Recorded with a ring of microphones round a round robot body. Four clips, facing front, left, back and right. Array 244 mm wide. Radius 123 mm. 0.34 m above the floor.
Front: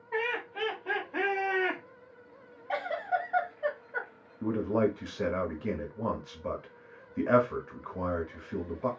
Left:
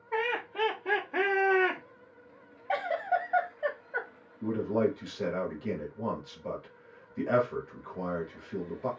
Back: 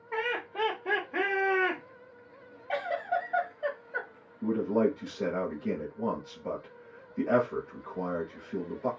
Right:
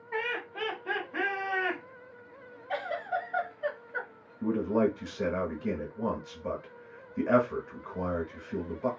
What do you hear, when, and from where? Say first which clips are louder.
0.1 s laughter: left 3 dB, back 1 dB; 155° left, 1.6 m; by 1.8 s 85° left, 1.4 m
2.7 s a giggle: left 4 dB, even; 90° left, 1.7 m
4.4 s a man speaking: right 1 dB, back 1 dB; 20° right, 1.1 m